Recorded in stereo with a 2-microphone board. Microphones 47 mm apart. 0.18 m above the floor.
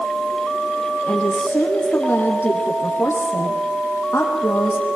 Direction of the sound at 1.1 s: 40° left (ahead or behind).